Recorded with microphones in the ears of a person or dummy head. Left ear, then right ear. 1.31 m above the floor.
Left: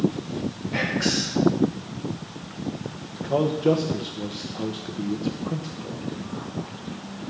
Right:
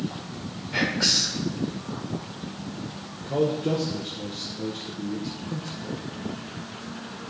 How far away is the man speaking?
About 1.0 m.